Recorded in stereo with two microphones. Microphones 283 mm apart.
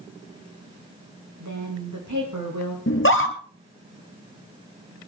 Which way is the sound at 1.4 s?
80° right.